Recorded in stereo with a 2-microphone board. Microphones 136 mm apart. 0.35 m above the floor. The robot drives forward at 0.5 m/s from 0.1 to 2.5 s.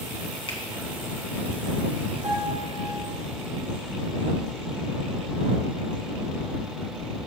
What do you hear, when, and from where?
0.5 s a finger snap: 45° left (ahead or behind), 2 m
2.2 s a piano: 75° right (ahead or behind), 3 m; by 3.1 s 70° right (ahead or behind), 3 m